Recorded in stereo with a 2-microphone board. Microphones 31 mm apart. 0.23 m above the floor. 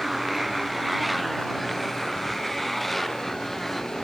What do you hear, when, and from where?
0.0 s a motorcycle: 5° right (ahead or behind); by 4.1 s 10° left (ahead or behind)